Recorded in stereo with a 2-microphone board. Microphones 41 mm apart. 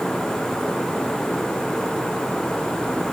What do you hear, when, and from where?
Only background noise.